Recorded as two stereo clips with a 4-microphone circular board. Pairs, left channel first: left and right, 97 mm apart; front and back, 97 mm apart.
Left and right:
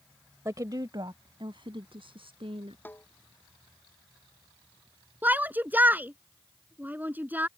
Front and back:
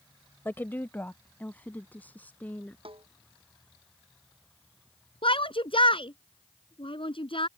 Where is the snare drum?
160° left.